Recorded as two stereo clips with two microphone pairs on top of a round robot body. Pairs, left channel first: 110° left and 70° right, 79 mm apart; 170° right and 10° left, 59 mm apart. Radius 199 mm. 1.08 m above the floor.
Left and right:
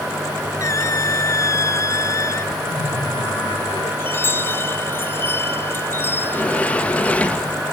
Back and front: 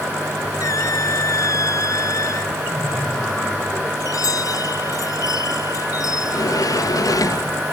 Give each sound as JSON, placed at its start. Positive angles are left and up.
{"t": 0.6, "sound": "a squeak", "azimuth_deg": 160}
{"t": 2.7, "sound": "laughter", "azimuth_deg": 100}
{"t": 4.0, "sound": "a chime", "azimuth_deg": 170}
{"t": 6.2, "sound": "a sliding door", "azimuth_deg": 180}